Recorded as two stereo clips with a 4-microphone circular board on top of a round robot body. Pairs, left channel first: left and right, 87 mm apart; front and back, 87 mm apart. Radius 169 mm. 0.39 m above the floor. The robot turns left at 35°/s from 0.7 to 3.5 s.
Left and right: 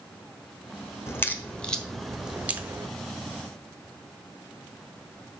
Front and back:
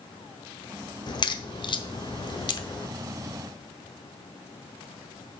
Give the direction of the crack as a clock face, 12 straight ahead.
11 o'clock.